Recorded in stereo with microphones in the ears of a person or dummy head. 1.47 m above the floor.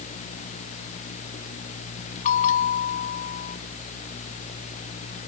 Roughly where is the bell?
Left.